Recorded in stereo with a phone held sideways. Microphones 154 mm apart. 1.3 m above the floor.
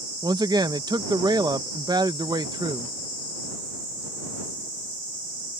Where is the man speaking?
25° right (ahead or behind).